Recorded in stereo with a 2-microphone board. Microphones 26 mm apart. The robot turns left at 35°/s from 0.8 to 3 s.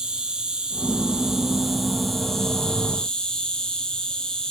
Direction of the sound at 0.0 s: 140° right.